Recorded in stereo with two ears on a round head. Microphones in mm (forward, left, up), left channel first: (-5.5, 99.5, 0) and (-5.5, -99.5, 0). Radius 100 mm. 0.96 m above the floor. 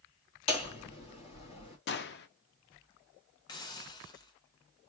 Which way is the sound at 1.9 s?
50° left (ahead or behind).